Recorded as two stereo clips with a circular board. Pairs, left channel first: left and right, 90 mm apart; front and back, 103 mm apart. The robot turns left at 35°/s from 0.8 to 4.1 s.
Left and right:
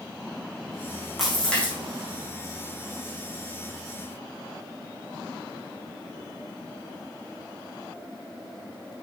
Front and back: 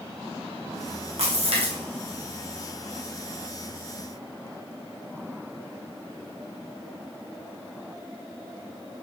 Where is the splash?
Straight behind, 3 m; by 1.8 s 160° left, 3 m.